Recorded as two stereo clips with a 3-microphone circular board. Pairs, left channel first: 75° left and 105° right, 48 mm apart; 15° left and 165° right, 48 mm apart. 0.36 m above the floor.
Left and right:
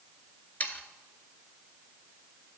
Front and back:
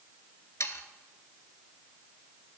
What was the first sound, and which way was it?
Sawing, 20° left.